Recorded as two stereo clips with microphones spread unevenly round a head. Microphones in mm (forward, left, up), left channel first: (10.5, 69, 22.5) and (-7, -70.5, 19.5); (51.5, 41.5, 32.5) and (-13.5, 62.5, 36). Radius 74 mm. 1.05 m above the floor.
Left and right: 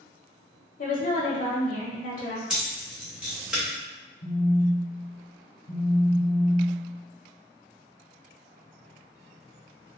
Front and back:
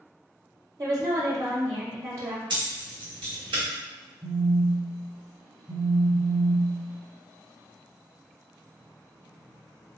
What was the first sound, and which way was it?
A woman speaking, 120° left.